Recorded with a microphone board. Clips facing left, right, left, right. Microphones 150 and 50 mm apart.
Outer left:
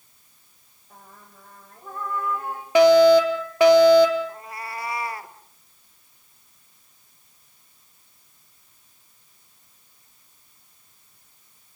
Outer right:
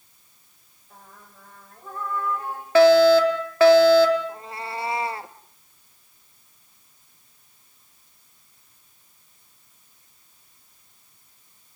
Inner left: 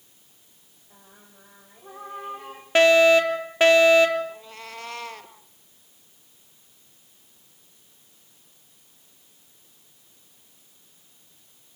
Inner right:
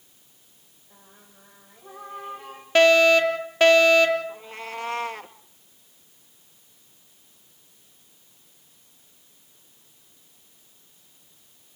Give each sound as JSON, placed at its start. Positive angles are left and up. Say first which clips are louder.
{"t": 0.9, "sound": "singing", "louder": "even, inner left 1 dB", "side_deg": 15, "distance_m": 5.5}
{"t": 2.8, "sound": "a fire alarm", "louder": "even, even", "side_deg": 15, "distance_m": 3.5}
{"t": 4.3, "sound": "a cat meowing", "louder": "outer right 2 dB, inner right 4 dB", "side_deg": -25, "distance_m": 1.1}